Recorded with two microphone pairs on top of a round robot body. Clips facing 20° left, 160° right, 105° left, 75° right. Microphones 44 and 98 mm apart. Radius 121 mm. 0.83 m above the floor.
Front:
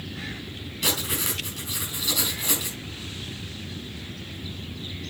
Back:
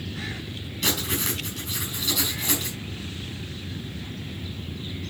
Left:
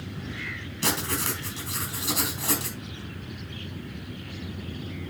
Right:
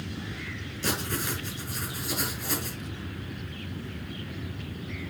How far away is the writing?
About 5.5 m.